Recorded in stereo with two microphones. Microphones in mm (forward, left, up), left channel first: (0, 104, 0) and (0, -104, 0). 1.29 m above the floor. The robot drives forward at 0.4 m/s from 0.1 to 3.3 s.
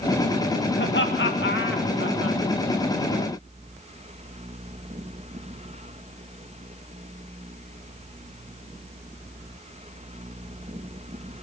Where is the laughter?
60° left (ahead or behind), 2.0 m; by 2.4 s 75° left (ahead or behind), 1.8 m.